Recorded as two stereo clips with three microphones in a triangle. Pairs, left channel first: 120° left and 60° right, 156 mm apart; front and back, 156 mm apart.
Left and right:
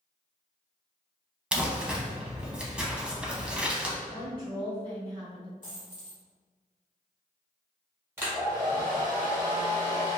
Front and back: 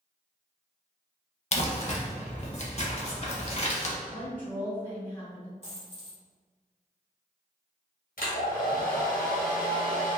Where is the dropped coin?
145° left, 1.3 m.